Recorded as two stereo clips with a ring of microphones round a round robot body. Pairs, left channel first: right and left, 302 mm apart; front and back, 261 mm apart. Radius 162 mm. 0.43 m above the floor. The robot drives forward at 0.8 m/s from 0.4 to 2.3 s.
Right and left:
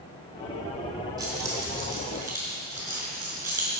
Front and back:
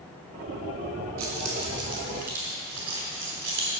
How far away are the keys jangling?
About 3 m.